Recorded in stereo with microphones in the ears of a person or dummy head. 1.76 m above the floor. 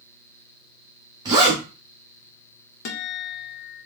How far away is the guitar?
About 0.6 m.